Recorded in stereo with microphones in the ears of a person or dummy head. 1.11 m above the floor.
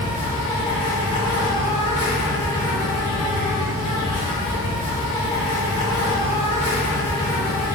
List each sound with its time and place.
0.0 s an insect: 25° left (ahead or behind), 0.8 m